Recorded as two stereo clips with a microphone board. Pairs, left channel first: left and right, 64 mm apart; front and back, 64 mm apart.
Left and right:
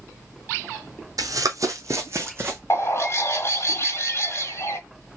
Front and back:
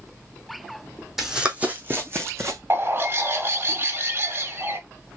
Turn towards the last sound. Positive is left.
turn(degrees=130)